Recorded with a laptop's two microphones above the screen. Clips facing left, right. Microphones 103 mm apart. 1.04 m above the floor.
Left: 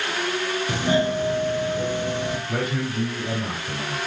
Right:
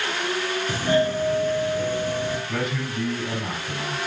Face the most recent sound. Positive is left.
turn(degrees=40)  # may be behind; listen again after turning